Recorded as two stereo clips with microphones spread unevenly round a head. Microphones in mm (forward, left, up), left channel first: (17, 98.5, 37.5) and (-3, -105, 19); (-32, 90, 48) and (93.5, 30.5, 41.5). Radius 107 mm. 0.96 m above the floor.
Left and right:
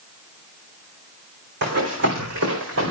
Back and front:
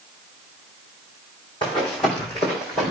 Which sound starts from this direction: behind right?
Running footsteps, at 1.6 s.